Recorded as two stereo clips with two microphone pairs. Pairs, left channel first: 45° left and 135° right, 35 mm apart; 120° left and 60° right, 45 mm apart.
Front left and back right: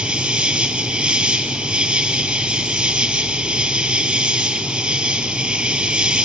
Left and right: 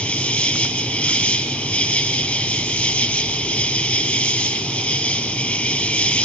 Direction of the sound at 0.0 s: 165° left.